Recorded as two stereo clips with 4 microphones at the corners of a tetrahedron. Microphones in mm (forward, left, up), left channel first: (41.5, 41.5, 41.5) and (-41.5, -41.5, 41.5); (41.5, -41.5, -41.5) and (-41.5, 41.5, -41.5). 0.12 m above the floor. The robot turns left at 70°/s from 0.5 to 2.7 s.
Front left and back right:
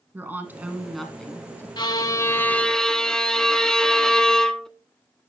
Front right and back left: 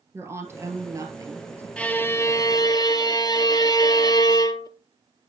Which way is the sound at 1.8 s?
30° left.